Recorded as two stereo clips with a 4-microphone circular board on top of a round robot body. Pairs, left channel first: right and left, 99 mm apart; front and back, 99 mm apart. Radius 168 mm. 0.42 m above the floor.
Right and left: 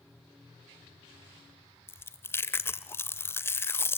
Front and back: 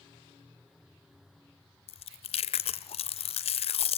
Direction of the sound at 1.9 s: 20° right.